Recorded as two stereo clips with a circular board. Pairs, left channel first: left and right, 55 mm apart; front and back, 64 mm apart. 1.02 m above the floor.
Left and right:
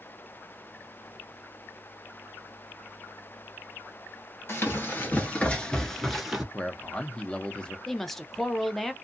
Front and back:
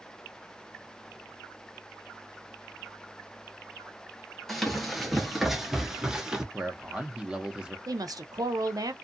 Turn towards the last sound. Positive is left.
turn(degrees=175)